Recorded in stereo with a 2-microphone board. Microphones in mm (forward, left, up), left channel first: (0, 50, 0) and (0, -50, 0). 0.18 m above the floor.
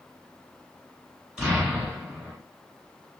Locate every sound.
1.4 s an explosion: 10° right (ahead or behind), 1.6 m